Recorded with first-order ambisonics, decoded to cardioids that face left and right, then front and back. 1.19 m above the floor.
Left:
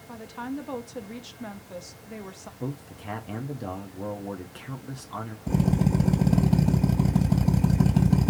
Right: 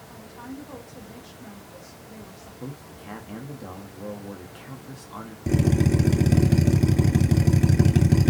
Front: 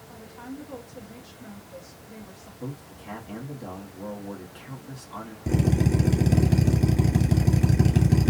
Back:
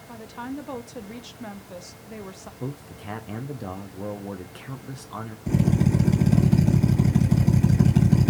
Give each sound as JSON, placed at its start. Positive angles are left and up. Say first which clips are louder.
{"t": 0.1, "sound": "a woman speaking", "louder": "left 6 dB, back 7 dB", "azimuth_deg": 145, "distance_m": 0.5}
{"t": 2.6, "sound": "a man speaking", "louder": "left 4 dB, back 2 dB", "azimuth_deg": 155, "distance_m": 0.5}
{"t": 5.5, "sound": "a drill", "louder": "right 4 dB, even", "azimuth_deg": -75, "distance_m": 2.0}